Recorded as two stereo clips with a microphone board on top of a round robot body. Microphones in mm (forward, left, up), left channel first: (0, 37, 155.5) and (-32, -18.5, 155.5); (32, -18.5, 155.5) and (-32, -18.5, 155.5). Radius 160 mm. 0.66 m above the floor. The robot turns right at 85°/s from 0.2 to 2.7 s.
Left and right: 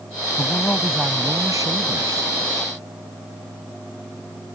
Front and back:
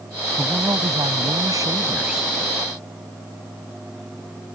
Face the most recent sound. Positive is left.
turn(degrees=-55)